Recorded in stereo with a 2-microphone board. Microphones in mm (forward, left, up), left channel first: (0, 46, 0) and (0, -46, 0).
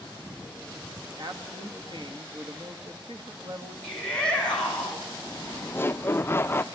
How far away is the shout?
About 6 m.